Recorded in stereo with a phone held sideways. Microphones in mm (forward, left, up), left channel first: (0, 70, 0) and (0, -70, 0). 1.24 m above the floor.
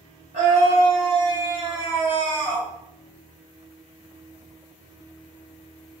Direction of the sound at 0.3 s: 50° right (ahead or behind).